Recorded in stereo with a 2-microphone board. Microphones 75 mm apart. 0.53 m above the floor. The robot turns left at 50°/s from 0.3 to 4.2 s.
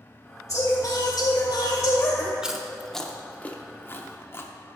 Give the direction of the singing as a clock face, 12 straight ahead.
8 o'clock.